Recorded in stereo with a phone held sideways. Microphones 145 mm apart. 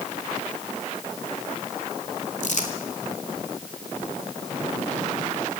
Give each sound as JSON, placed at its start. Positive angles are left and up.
{"t": 2.4, "sound": "crumpling", "side_deg": 60, "distance_m": 3.0}